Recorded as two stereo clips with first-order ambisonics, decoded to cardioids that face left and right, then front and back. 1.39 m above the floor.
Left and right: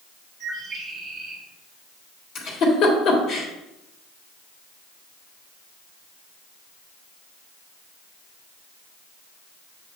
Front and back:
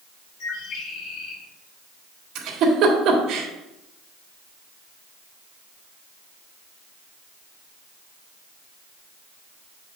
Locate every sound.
0.4 s a bird: 10° right, 2 m
2.4 s a giggle: 135° left, 1.7 m